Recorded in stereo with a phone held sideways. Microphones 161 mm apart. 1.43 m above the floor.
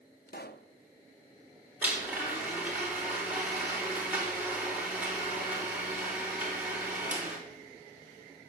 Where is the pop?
80° left, 0.7 m.